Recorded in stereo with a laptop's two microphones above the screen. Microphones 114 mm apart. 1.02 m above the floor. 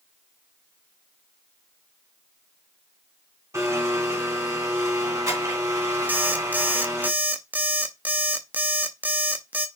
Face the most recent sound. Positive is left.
turn(degrees=-15)  # may be behind; listen again after turning